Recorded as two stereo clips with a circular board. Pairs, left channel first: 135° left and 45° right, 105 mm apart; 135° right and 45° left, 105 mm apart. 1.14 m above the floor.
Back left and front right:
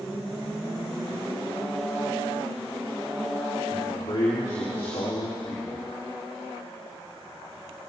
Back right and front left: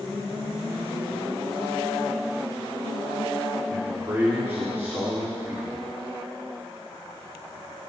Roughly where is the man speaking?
Left.